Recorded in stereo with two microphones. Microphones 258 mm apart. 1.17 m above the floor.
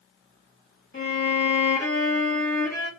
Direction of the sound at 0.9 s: 45° left (ahead or behind).